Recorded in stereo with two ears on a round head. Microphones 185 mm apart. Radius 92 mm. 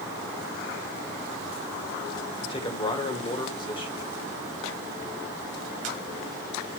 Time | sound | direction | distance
2.4 | a man speaking | 25° left (ahead or behind) | 1.9 m